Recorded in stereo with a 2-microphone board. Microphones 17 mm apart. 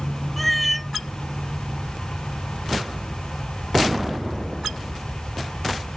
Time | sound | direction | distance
0.4 | a cat meowing | centre (ahead or behind) | ?